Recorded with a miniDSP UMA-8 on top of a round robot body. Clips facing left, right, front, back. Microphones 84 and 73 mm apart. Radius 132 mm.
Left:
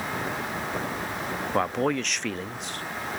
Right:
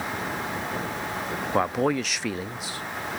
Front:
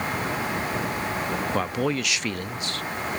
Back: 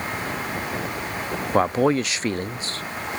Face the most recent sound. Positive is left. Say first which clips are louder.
# right 2 dB, back 10 dB
turn(degrees=-170)